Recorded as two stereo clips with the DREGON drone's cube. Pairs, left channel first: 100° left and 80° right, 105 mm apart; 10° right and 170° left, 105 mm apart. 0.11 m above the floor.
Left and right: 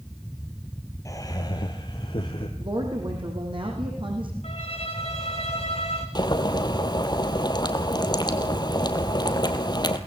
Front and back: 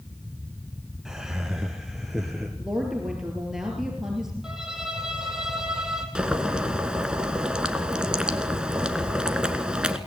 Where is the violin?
85° left, 3 m.